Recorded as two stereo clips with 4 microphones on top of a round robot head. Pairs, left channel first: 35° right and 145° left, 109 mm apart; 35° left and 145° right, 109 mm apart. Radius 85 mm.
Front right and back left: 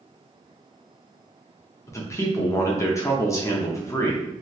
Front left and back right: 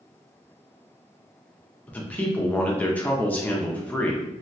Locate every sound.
1.9 s a man speaking: 25° right, 0.5 m